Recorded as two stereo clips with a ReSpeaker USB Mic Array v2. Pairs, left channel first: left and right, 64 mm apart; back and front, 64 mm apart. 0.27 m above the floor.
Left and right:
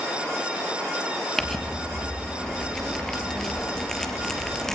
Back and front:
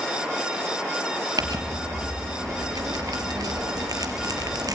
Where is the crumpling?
5° left, 3 m.